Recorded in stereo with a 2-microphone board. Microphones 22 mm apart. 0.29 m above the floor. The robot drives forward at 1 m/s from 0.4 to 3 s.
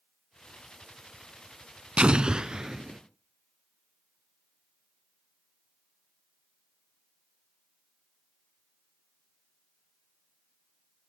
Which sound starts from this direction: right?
An explosion, at 2.0 s.